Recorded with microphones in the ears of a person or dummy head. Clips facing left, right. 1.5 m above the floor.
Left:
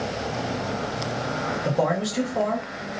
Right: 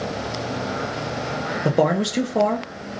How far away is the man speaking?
About 0.5 m.